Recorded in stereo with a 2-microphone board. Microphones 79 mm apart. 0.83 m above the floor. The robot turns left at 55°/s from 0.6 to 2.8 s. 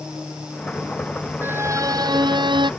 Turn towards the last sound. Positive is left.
turn(degrees=-100)